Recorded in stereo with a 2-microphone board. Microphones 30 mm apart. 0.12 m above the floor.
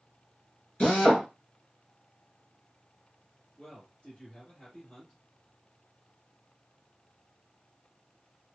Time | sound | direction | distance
0.8 | a drill | 35° left (ahead or behind) | 1.6 m
3.6 | a man speaking | 20° left (ahead or behind) | 1.8 m